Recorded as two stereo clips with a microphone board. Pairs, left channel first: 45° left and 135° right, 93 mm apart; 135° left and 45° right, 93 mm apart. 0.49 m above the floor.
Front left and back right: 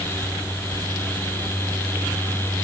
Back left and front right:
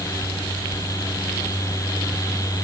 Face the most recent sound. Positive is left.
No sound to turn to.